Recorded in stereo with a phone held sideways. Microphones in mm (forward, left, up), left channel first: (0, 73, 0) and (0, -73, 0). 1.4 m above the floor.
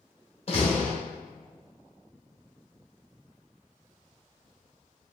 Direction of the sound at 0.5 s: 45° left (ahead or behind).